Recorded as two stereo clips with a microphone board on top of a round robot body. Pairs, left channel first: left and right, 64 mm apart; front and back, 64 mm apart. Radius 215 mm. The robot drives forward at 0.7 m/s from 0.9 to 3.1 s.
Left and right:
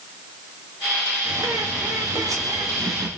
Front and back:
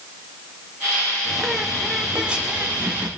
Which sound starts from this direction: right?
A bird, at 1.2 s.